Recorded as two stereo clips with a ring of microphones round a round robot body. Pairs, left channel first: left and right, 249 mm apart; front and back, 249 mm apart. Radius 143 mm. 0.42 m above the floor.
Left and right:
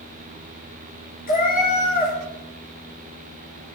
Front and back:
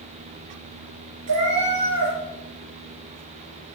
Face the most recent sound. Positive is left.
turn(degrees=145)